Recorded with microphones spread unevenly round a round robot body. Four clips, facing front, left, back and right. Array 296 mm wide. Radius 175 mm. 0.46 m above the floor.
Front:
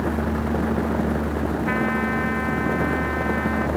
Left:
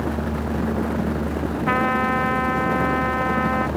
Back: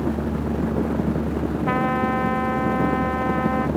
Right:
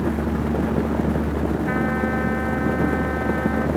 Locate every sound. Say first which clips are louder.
1.7 s a trumpet: left 2 dB, back 4 dB; 140° left